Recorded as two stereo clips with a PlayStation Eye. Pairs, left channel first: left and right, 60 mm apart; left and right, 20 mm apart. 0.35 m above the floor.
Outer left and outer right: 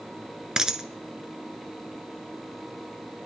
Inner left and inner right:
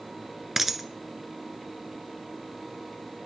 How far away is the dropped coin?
About 0.7 m.